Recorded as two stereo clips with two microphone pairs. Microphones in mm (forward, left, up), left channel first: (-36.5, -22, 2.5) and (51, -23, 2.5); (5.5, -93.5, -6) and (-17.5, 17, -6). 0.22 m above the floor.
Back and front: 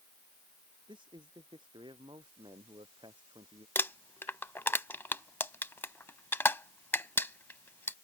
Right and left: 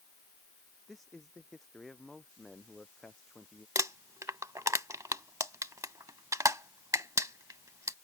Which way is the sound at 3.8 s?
140° left.